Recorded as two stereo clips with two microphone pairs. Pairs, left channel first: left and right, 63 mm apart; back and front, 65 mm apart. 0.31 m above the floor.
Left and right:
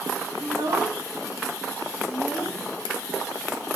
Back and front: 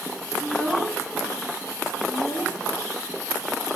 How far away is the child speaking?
About 1.8 m.